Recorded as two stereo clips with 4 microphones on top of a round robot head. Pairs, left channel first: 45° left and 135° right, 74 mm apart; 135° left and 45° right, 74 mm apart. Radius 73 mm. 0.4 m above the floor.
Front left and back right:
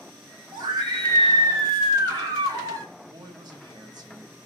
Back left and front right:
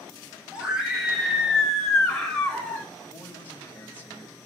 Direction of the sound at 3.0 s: 160° right.